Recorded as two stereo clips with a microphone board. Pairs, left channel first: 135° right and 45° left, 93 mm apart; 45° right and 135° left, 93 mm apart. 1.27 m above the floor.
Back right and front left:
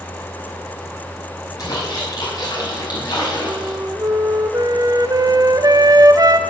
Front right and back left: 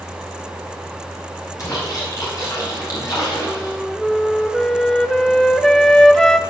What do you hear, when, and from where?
1.6 s a splash: 90° right, 4.5 m
3.5 s a flute: 35° left, 0.5 m